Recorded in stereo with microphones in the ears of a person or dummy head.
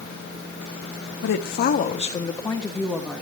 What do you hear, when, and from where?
1.2 s a woman speaking: 75° left (ahead or behind), 1.6 m; by 3.2 s 5° right (ahead or behind), 2.5 m